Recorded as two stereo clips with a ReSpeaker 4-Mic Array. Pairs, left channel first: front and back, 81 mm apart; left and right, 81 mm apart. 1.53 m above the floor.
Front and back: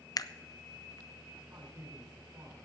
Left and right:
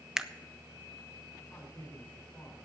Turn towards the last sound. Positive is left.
turn(degrees=160)